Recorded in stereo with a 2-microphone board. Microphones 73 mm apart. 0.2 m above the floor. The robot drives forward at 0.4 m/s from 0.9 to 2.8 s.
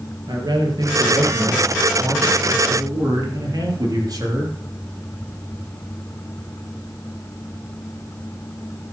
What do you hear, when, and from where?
0.3 s a man speaking: 60° right (ahead or behind), 4 m; by 4.5 s 55° right (ahead or behind), 4.5 m